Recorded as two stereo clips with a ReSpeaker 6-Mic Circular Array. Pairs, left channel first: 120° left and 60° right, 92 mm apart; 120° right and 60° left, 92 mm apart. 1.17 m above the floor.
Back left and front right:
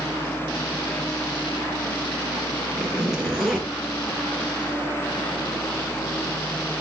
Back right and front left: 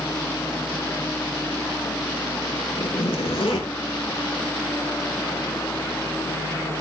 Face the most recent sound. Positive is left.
turn(degrees=-145)